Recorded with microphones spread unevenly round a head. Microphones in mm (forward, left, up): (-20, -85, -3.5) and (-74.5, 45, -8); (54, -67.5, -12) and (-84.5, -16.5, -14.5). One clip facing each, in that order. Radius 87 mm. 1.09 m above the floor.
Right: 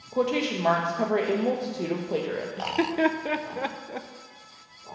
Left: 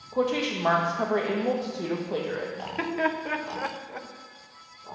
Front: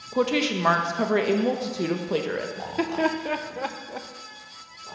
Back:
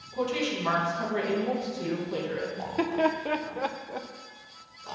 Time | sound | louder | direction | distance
0.1 | a woman speaking | right 1 dB, front 6 dB | 15° left | 0.8 m
2.6 | laughter | right 6 dB, even | 110° right | 0.5 m